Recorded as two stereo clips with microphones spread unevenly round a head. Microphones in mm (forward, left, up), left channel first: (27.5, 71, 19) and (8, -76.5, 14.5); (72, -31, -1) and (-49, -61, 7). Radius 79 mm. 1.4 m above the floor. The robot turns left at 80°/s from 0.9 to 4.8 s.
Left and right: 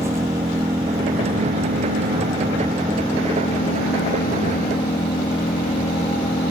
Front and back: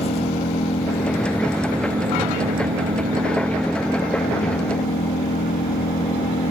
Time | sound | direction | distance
0.0 | an engine running | 25° right | ?